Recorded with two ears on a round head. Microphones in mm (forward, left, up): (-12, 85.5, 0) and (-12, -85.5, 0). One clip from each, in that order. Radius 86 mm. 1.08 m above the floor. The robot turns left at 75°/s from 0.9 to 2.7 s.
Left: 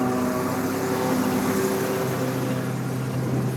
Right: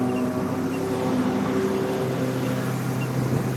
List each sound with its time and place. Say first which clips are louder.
0.0 s a lawn mower: left 1 dB; 125° left; by 3.6 s 10° right